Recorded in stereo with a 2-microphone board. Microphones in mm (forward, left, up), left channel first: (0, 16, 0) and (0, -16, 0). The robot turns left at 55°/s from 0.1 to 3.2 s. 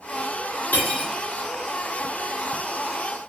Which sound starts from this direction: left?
Cutlery clinking, at 0.7 s.